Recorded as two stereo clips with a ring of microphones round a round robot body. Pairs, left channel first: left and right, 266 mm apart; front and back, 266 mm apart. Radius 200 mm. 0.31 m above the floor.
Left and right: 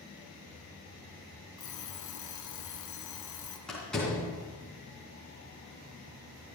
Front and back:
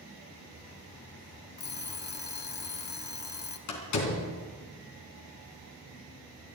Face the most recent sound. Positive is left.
turn(degrees=0)